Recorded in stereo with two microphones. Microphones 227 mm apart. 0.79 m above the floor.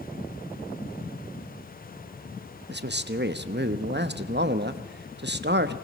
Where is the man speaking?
50° right (ahead or behind), 0.9 m.